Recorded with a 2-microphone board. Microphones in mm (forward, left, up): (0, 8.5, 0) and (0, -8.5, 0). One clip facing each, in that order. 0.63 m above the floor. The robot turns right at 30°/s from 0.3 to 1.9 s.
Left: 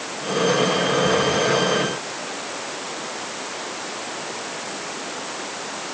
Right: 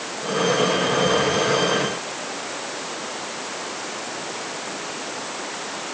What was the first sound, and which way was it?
Only background noise.